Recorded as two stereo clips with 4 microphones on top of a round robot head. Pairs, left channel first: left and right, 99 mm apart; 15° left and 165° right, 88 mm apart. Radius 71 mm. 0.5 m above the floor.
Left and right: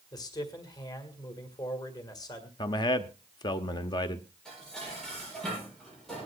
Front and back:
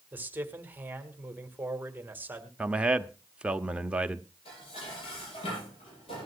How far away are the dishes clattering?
About 10 m.